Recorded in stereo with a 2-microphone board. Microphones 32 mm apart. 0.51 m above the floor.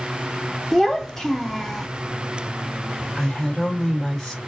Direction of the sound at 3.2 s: 10° left (ahead or behind).